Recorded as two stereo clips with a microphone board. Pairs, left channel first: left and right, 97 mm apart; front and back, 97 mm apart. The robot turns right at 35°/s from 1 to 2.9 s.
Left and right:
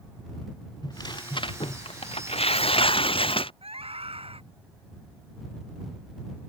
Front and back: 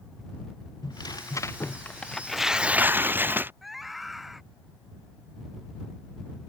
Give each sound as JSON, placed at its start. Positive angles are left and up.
{"t": 0.8, "sound": "tearing paper", "azimuth_deg": 45}
{"t": 3.6, "sound": "a scream", "azimuth_deg": -90}